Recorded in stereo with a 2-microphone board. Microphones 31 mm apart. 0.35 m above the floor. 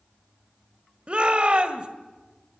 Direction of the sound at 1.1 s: 35° right (ahead or behind).